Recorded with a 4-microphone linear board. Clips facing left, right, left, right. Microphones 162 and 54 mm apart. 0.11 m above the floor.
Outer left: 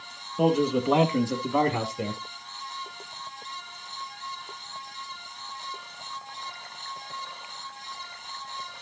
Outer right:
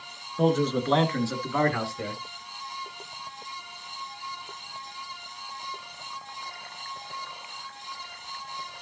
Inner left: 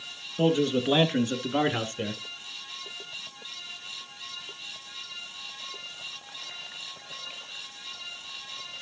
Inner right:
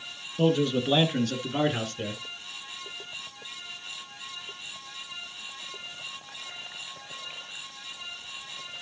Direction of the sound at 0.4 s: 10° left (ahead or behind).